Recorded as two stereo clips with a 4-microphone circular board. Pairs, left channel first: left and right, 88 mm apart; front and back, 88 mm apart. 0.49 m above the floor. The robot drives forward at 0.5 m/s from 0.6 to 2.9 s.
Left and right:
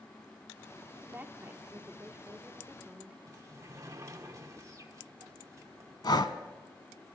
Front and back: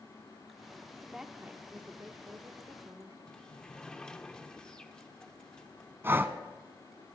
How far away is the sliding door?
About 0.9 m.